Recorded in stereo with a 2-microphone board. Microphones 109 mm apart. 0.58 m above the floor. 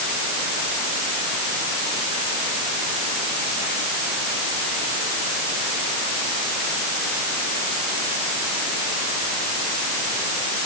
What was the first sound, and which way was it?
Only background noise.